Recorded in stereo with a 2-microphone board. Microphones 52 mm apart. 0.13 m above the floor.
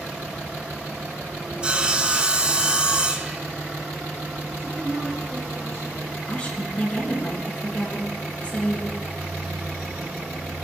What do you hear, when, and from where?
1.6 s sawing: 20° right (ahead or behind), 0.7 m
4.6 s a woman speaking: 65° right (ahead or behind), 3 m
6.3 s a woman speaking: 25° left (ahead or behind), 2.0 m